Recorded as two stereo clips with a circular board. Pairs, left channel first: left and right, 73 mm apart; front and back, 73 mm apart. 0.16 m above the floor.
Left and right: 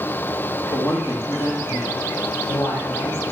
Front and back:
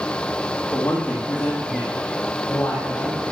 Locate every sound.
0.7 s a woman speaking: 65° left, 3 m; by 3.2 s 60° left, 4.5 m